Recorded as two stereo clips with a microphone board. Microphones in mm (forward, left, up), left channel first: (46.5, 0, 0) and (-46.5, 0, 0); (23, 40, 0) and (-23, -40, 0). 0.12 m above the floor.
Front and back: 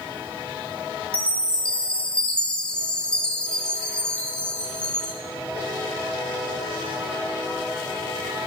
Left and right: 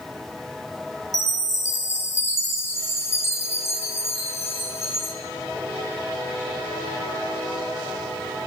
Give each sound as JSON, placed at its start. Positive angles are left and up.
{"t": 1.1, "sound": "a chime", "azimuth_deg": 70, "distance_m": 0.7}